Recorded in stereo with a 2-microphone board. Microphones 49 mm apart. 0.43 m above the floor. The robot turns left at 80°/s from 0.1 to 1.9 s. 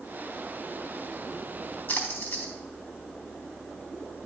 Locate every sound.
1.9 s a splash: 45° left (ahead or behind), 1.1 m